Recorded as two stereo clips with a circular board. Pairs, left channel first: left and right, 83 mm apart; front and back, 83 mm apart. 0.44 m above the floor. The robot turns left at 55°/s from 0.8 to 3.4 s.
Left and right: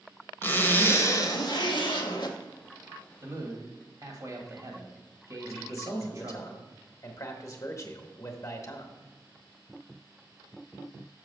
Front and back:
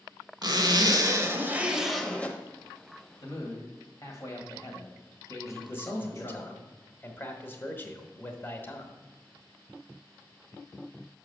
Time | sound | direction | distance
0.4 | a zipper | 155° left | 0.9 m
3.2 | a man speaking | 35° right | 1.9 m
5.4 | a man speaking | 55° left | 1.1 m